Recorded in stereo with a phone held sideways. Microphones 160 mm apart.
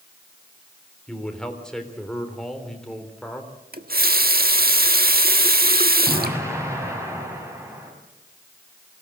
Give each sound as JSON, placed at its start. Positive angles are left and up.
{"t": 1.1, "sound": "a man speaking", "side_deg": 5, "distance_m": 3.5}
{"t": 3.7, "sound": "a running tap", "side_deg": -70, "distance_m": 1.3}
{"t": 6.0, "sound": "an explosion", "side_deg": -15, "distance_m": 6.0}